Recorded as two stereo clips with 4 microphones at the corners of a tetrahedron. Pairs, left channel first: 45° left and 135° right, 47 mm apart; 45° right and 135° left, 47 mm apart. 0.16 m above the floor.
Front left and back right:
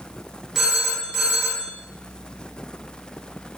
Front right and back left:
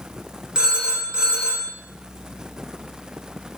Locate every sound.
0.6 s a phone ringing: 165° left, 0.6 m